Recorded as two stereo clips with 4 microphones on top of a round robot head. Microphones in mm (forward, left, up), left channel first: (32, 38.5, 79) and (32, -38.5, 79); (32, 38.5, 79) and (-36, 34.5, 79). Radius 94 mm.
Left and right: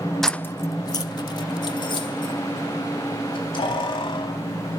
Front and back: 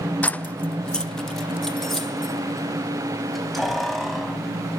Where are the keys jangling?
10° left, 0.6 m; by 4.4 s 90° left, 4.5 m.